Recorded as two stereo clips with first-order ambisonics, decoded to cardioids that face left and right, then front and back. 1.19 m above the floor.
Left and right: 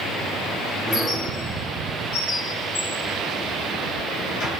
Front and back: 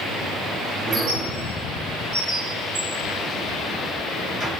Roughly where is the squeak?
Behind left.